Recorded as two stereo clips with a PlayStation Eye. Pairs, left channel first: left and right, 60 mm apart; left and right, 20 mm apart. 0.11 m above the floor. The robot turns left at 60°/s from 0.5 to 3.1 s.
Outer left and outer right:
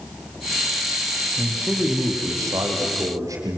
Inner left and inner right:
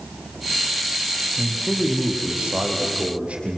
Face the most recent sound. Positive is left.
turn(degrees=-105)